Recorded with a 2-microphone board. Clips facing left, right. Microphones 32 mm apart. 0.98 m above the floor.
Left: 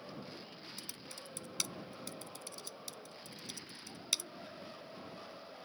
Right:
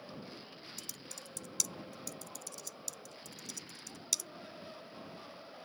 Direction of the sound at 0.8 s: 30° left (ahead or behind).